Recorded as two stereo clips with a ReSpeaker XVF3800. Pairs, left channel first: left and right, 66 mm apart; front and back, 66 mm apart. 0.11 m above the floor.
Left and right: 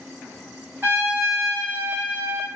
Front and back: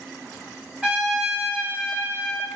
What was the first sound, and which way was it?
A trumpet, 115° right.